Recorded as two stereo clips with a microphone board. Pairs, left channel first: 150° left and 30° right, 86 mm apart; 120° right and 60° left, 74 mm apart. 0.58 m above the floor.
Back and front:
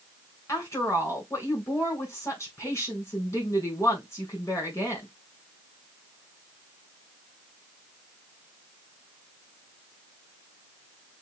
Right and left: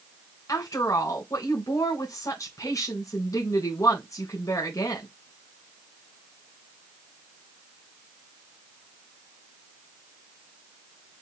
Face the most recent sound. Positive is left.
turn(degrees=-155)